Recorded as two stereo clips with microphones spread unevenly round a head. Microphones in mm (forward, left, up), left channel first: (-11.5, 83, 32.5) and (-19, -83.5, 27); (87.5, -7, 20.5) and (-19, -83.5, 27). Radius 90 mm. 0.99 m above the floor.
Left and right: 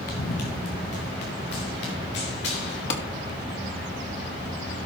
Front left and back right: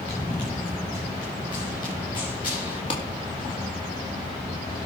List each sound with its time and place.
0.1 s running footsteps: 120° left, 3.5 m; by 2.8 s 100° left, 5.5 m
2.9 s a clap: 90° left, 1.8 m